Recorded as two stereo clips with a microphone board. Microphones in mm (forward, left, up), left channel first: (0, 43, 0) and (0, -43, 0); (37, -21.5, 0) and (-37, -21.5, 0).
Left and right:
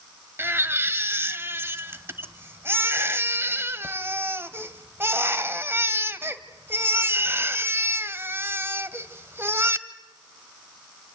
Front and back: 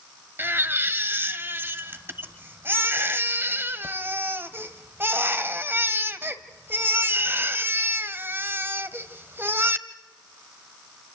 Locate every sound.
0.4 s a baby crying: 135° right, 1.4 m